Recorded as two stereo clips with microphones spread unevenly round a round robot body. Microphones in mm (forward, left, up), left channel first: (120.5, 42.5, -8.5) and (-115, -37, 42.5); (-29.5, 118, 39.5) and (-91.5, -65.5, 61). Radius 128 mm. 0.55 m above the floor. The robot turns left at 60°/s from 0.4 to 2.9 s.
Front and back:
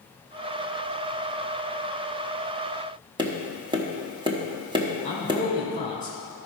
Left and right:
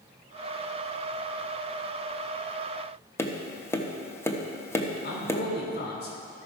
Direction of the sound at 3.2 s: 120° left.